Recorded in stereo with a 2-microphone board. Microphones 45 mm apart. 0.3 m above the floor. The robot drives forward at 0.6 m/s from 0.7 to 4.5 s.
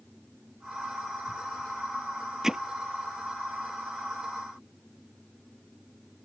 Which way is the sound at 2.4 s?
10° right (ahead or behind).